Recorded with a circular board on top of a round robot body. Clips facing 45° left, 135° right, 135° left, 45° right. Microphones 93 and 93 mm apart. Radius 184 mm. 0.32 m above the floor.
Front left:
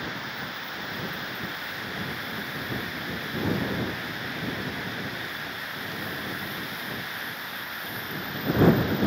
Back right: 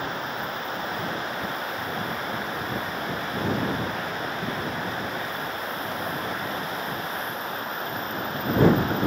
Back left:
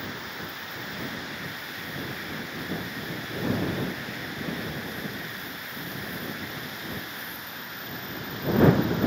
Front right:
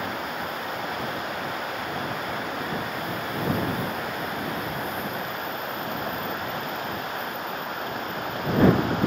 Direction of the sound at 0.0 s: 85° right.